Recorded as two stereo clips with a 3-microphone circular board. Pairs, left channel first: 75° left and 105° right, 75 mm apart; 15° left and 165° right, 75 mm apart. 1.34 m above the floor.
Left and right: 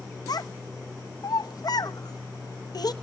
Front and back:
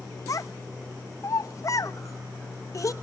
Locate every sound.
0.3 s a child speaking: 55° left, 0.9 m